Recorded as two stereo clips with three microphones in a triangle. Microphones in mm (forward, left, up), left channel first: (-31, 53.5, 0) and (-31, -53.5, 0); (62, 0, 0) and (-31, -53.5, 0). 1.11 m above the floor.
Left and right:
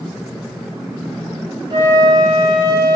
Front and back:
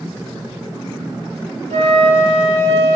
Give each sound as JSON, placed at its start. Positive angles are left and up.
{"t": 1.7, "sound": "a flute", "azimuth_deg": -140, "distance_m": 0.5}